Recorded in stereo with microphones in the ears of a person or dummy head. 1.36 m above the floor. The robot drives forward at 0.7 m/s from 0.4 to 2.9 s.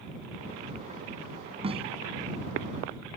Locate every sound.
1.6 s a snare drum: 30° right (ahead or behind); by 1.9 s 25° right (ahead or behind)